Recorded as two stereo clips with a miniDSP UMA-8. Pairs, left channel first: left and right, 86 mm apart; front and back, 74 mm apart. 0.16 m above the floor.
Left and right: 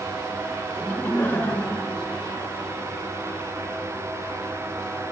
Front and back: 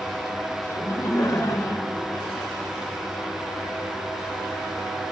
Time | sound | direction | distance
0.8 | laughter | 30° left | 1.5 m